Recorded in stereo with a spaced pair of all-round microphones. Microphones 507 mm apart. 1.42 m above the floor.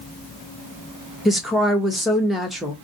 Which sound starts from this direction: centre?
A woman speaking, at 1.2 s.